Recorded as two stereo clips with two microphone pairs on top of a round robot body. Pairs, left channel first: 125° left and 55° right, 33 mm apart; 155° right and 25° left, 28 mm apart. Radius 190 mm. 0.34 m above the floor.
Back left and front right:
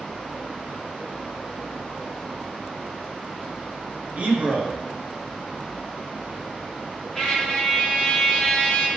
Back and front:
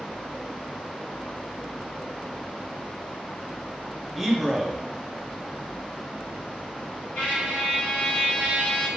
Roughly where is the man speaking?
Ahead right.